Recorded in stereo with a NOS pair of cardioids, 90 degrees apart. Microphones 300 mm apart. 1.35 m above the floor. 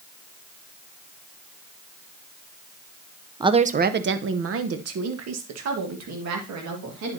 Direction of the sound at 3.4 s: 15° right.